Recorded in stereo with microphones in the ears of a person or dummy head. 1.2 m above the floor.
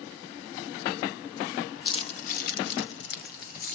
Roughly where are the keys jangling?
Left.